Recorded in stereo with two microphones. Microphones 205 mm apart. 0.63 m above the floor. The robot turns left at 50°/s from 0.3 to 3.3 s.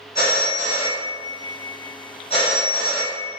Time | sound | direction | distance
0.1 | a phone ringing | 130° left | 0.9 m